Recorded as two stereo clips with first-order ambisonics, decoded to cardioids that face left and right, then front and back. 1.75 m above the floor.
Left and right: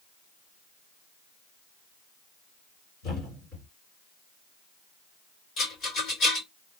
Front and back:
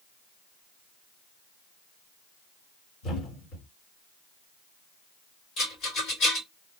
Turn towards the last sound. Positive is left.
turn(degrees=40)